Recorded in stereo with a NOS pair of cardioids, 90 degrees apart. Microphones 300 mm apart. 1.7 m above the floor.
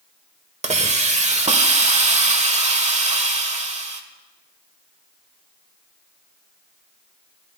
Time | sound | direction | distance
0.6 | a hiss | 25° right | 1.3 m